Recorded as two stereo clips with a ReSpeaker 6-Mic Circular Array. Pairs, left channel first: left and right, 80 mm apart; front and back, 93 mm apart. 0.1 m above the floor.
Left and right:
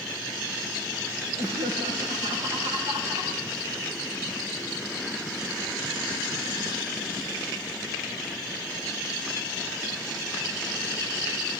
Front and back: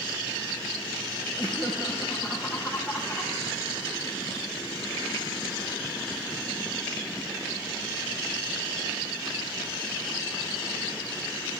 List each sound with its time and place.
1.4 s laughter: 85° right, 7 m